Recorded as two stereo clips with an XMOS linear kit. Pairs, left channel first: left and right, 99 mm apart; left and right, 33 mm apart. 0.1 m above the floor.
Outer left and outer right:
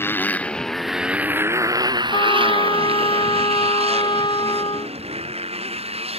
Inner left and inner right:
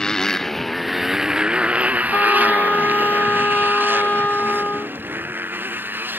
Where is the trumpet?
55° left (ahead or behind).